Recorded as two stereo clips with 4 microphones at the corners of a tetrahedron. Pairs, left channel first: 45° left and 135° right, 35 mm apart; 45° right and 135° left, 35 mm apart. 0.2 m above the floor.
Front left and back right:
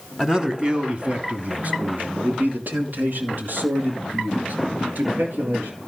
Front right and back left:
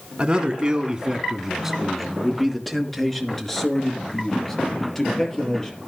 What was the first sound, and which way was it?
A man speaking, 160° left.